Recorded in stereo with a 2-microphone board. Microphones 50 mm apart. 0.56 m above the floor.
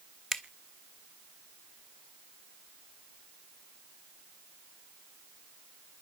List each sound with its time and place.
0.3 s a finger snap: 5° left (ahead or behind), 1.4 m